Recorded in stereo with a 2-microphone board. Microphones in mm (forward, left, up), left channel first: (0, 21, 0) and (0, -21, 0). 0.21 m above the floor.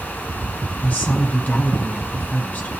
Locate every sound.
0.8 s a woman speaking: 40° left (ahead or behind), 2.0 m